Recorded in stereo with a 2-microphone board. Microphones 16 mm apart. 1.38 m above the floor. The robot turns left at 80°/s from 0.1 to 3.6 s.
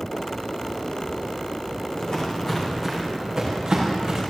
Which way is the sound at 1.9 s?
60° left (ahead or behind).